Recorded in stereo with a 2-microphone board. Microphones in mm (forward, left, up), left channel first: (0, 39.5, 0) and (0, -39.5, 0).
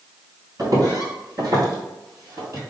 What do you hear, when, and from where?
0.6 s footsteps: 50° right (ahead or behind), 1.9 m; by 2.6 s 35° right (ahead or behind), 1.9 m